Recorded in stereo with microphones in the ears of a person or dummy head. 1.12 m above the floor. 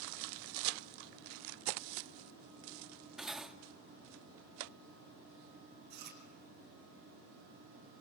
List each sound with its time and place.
3.2 s cutlery clinking: centre (ahead or behind), 1.1 m
5.9 s chewing: 55° right (ahead or behind), 4.5 m